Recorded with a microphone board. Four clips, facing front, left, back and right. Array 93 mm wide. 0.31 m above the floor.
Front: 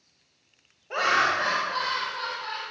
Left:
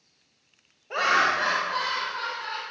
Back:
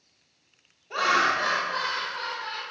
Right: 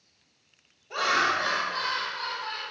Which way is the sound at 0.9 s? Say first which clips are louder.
Left 3 dB, even; 45° left.